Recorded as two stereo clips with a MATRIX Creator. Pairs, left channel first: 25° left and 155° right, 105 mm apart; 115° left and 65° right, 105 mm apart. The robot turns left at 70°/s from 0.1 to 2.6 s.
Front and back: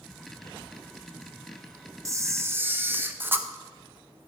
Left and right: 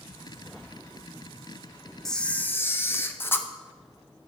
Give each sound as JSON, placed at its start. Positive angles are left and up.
{"t": 2.0, "sound": "a camera shutter", "azimuth_deg": -165, "distance_m": 0.5}